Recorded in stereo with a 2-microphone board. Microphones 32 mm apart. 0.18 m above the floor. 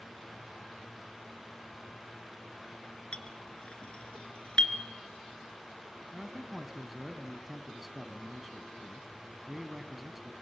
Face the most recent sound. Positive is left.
turn(degrees=-5)  # may be behind; listen again after turning